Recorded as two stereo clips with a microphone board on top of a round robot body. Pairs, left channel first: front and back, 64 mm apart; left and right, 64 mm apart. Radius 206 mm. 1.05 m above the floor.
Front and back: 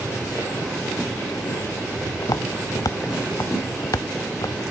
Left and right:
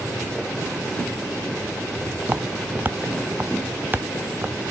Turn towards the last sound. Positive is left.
turn(degrees=-30)